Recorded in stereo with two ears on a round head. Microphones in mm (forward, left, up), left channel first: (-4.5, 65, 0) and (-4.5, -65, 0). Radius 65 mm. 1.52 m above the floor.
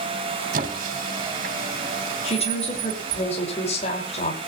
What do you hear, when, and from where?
0.5 s a squeak: 60° right (ahead or behind), 2.5 m
2.2 s a woman speaking: 45° left (ahead or behind), 5.5 m